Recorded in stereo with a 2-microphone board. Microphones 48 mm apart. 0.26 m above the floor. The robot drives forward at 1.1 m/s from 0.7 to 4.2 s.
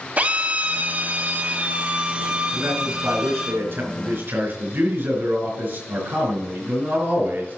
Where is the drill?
40° right (ahead or behind), 1.4 m; by 3.5 s 15° right (ahead or behind), 3 m.